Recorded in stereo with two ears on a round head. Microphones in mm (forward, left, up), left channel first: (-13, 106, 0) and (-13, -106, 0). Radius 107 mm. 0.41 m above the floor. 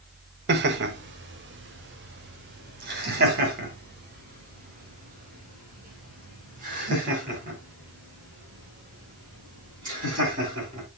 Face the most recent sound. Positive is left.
turn(degrees=-35)  # may be behind; listen again after turning